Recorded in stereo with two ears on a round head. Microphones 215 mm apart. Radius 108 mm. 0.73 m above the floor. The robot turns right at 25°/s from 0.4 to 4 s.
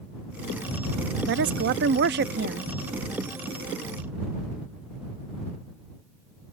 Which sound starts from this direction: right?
A woman speaking, at 1.3 s.